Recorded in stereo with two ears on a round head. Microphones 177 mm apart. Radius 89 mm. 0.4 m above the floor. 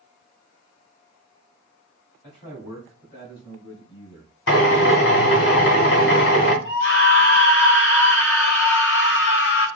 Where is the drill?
65° left (ahead or behind), 1.1 m.